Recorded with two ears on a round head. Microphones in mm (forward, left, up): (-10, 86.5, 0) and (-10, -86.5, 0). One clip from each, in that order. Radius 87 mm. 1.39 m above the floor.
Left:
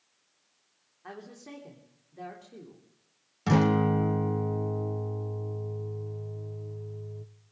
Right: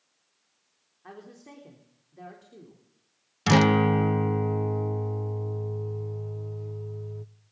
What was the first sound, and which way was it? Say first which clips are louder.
A woman speaking: left 2 dB; 10° left (ahead or behind).